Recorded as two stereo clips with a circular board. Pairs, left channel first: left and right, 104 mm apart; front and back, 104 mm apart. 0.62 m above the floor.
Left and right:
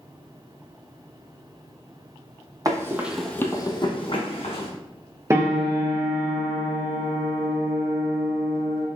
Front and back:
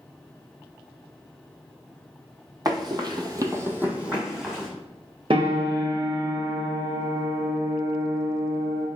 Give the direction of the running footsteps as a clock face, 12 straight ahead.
5 o'clock.